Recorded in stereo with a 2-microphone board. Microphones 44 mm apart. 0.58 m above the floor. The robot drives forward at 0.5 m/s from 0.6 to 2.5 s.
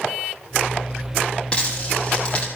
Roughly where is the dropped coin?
Left.